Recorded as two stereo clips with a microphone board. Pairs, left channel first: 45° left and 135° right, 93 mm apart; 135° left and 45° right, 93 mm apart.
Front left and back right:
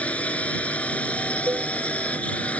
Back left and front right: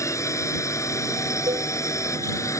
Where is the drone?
110° left.